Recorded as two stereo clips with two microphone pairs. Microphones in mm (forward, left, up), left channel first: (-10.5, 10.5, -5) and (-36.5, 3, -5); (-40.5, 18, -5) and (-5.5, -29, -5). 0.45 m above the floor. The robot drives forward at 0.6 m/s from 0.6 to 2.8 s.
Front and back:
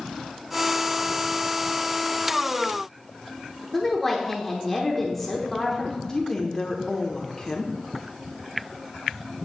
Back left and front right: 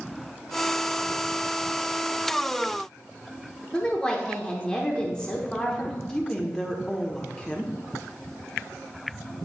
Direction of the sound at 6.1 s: 60° left.